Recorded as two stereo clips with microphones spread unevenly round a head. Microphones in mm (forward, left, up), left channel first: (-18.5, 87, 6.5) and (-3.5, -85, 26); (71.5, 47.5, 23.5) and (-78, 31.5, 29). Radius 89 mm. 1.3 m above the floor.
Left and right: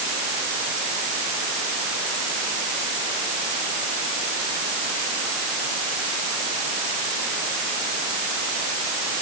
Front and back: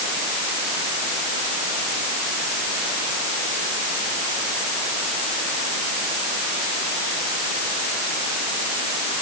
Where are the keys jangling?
I don't hear keys jangling.